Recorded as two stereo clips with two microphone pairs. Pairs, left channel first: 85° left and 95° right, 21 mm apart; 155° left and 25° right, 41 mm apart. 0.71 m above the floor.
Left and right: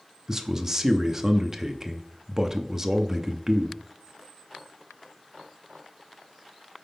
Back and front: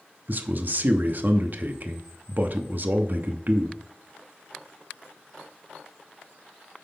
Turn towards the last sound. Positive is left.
turn(degrees=-40)